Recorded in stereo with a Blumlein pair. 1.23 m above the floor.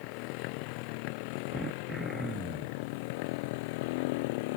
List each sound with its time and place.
0.0 s a motorcycle: 45° left; by 4.6 s 50° left
1.5 s throat clearing: 10° right